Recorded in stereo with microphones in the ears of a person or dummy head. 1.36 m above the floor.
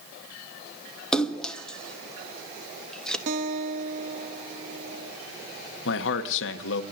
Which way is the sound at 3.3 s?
45° right (ahead or behind).